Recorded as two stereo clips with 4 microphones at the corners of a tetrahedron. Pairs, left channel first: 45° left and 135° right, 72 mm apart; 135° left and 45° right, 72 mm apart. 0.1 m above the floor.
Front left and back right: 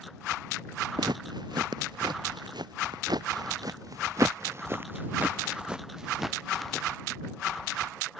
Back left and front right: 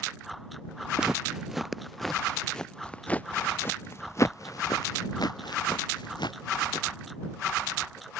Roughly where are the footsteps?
Behind right.